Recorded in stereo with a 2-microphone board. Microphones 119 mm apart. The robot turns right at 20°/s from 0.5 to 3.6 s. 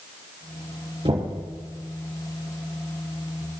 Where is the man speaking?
No man speaking in this recording.